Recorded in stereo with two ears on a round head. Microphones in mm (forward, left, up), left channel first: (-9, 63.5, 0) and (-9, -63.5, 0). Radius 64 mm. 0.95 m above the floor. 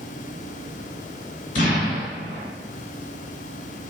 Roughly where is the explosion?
Left.